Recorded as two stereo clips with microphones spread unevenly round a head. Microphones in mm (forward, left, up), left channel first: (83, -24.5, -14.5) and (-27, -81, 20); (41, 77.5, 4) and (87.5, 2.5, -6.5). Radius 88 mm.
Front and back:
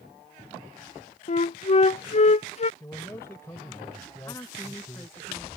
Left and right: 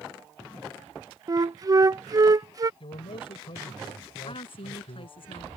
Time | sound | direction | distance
1.3 | a flute | 10° right | ?
2.8 | a man speaking | 105° left | ?
4.3 | a woman speaking | 105° left | ?